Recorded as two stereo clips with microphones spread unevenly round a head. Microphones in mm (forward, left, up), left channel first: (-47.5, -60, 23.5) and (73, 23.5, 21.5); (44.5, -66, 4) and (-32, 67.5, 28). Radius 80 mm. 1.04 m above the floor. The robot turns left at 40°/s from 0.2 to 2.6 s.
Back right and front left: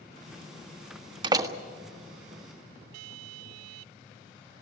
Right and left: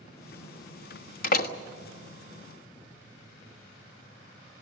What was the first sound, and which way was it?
A door slam, 25° right.